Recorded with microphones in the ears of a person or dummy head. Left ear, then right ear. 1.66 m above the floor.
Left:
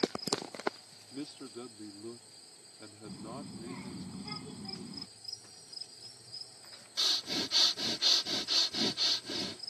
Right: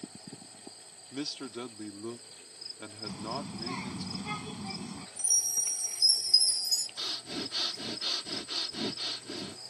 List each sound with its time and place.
1.1 s a man speaking: 45° right (ahead or behind)
3.0 s a child speaking: 50° right (ahead or behind)
5.2 s a chime: 65° right (ahead or behind)
7.0 s breathing: 25° left (ahead or behind)